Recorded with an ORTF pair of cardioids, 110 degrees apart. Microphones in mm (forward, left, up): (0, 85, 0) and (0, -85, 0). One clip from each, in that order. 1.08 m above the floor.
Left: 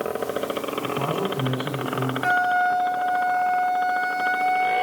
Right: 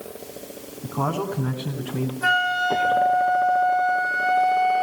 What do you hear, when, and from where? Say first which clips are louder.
0.8 s a man speaking: right 2 dB; 40° right, 8 m
2.2 s a flute: even; 65° right, 5.5 m